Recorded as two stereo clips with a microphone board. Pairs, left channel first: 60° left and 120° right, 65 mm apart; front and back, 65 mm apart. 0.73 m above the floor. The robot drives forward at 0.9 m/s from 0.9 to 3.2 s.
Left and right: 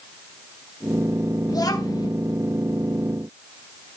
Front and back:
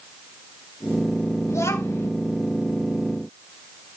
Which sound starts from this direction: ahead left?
A child speaking, at 1.5 s.